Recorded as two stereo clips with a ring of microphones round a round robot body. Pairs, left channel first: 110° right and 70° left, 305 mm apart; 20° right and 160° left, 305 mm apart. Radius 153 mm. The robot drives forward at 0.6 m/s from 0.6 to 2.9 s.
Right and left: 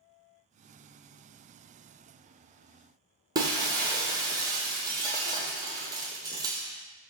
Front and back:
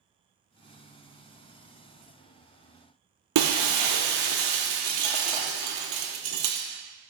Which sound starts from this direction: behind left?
Breaking glass, at 3.4 s.